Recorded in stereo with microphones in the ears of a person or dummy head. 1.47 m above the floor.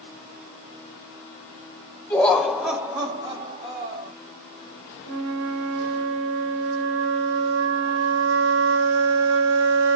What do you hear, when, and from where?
2.1 s laughter: 15° left (ahead or behind), 1.0 m; by 4.1 s 35° right (ahead or behind), 1.7 m
5.0 s a flute: 75° right (ahead or behind), 1.0 m